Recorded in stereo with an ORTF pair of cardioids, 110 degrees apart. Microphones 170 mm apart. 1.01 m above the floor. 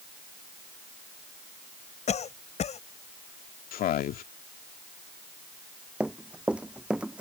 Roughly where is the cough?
Ahead left.